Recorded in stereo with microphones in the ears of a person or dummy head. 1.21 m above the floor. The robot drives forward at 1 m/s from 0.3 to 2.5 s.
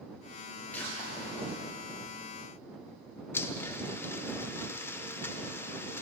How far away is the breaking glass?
About 4 m.